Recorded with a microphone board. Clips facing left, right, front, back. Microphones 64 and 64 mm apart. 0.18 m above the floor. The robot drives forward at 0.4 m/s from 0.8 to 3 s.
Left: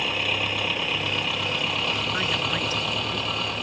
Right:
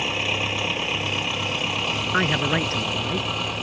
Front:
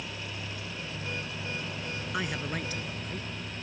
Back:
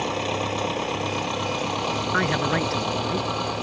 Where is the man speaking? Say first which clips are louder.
Right 5 dB, back 10 dB; 135° right; by 3.3 s 140° right.